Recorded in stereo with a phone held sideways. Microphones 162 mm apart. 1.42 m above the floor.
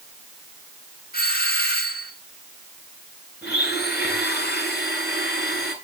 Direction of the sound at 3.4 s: 85° left.